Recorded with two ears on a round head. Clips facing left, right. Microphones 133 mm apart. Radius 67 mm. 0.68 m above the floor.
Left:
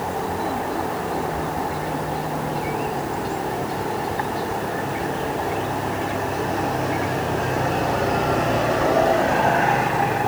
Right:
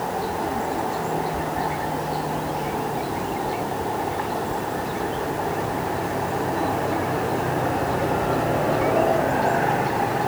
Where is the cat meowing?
No cat meowing in this recording.